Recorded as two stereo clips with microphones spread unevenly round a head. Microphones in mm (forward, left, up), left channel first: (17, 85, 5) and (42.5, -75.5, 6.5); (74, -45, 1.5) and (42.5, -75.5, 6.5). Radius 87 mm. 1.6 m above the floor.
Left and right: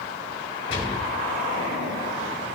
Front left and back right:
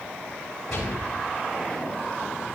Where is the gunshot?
130° left, 2 m.